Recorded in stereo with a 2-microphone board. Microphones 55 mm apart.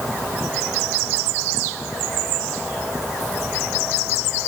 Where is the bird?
No bird in this recording.